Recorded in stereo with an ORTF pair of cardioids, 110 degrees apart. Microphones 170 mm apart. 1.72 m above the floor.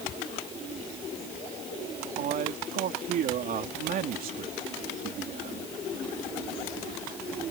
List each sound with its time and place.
2.2 s a man speaking: 60° right